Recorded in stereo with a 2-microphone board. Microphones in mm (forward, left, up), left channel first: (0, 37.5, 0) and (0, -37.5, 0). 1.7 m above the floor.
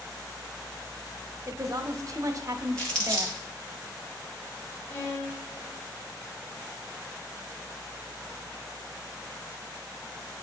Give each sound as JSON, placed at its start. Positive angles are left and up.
{"t": 1.5, "sound": "a woman speaking", "side_deg": -45, "distance_m": 0.7}
{"t": 2.8, "sound": "crumpling", "side_deg": 15, "distance_m": 1.9}
{"t": 4.9, "sound": "a violin", "side_deg": 35, "distance_m": 3.0}